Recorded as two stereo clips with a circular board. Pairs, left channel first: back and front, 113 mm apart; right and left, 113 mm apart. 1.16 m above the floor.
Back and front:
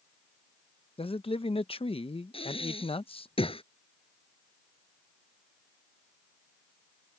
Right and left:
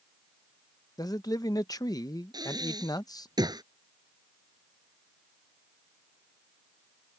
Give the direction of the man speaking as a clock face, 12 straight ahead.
5 o'clock.